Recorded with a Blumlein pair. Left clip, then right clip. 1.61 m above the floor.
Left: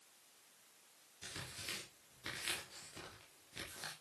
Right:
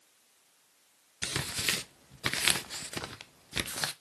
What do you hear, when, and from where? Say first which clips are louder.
1.2 s tearing paper: right 15 dB; 40° right, 0.9 m